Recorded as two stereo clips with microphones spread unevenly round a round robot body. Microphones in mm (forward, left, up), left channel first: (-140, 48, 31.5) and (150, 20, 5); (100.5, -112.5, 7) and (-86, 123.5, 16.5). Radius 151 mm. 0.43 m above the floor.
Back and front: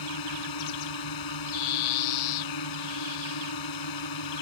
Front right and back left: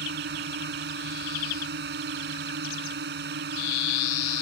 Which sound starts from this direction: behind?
A drone, at 0.0 s.